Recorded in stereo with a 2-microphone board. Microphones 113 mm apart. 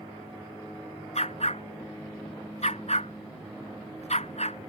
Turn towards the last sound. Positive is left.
turn(degrees=75)  # may be behind; listen again after turning